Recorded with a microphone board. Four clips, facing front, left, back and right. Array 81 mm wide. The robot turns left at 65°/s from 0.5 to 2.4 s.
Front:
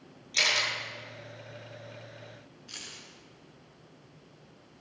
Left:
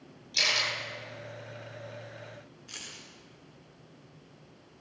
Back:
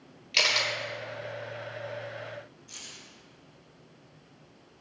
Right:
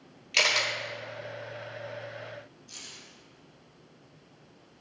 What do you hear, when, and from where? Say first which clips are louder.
0.3 s a camera shutter: right 4 dB, back 1 dB; 115° right, 1.4 m; by 0.7 s 130° right, 1.4 m
2.7 s keys jangling: left 2 dB, front 1 dB; 60° left, 1.9 m